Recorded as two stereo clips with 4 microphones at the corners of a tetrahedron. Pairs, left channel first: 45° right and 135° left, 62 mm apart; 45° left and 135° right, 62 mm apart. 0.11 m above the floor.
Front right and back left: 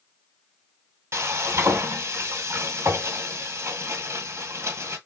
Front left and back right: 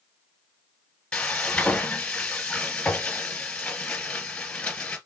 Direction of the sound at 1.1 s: 115° left.